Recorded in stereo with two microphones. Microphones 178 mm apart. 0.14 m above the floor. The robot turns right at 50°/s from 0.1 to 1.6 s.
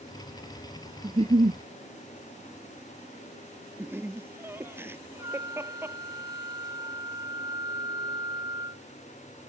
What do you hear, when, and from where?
1.0 s a giggle: 25° right (ahead or behind); by 1.6 s 50° right (ahead or behind)
3.8 s laughter: 15° right (ahead or behind)
5.2 s a flute: 20° right (ahead or behind)